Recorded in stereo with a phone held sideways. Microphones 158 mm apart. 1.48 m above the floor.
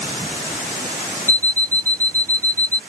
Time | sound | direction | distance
1.3 | an alarm clock | 55° right (ahead or behind) | ?